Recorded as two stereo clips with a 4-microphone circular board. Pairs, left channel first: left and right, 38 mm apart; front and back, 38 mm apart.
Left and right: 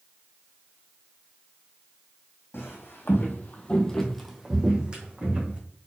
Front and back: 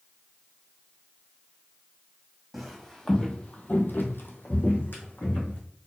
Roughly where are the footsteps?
Left.